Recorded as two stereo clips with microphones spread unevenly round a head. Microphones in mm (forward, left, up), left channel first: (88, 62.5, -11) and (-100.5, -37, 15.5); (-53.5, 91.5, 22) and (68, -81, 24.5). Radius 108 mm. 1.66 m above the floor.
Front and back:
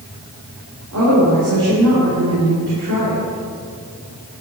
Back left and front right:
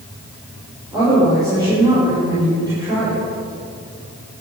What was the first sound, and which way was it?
A woman speaking, 130° right.